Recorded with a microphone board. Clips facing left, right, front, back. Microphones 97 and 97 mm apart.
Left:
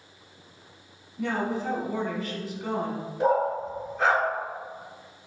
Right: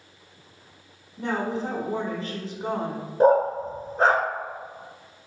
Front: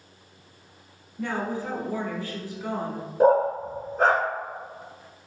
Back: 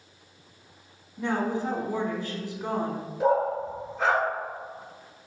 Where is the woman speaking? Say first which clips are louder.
Right 1 dB, back 2 dB; 125° right, 1.2 m.